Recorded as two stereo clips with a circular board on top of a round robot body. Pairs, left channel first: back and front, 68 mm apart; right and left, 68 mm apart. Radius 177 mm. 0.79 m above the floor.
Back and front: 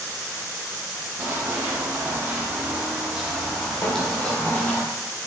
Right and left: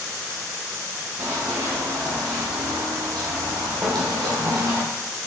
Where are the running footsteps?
45° left, 1.9 m; by 4.8 s 120° left, 1.6 m.